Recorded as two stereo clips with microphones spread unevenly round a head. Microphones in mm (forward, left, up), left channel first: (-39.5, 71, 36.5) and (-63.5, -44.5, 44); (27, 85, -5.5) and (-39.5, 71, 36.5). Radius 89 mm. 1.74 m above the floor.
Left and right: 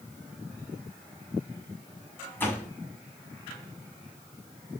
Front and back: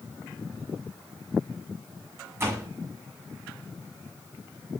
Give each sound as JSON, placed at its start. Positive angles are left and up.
{"t": 2.4, "sound": "a door slam", "azimuth_deg": 150, "distance_m": 8.5}